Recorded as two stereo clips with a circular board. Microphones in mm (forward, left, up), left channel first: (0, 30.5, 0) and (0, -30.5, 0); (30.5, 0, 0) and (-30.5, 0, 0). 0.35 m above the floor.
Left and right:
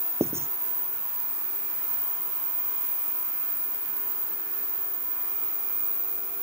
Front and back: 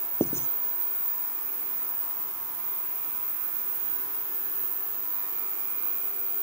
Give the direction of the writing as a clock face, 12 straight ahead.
2 o'clock.